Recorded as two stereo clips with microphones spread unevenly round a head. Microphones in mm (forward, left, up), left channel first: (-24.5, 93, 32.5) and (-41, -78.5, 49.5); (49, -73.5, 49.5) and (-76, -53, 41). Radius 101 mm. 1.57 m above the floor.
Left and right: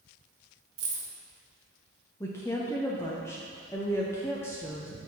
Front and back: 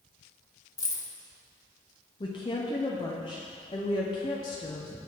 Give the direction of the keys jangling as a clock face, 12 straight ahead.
2 o'clock.